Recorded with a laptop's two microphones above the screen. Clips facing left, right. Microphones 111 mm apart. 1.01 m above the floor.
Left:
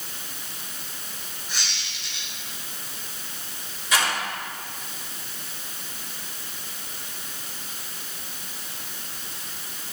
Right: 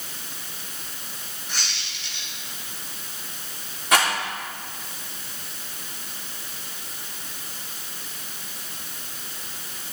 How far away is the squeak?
About 4.5 m.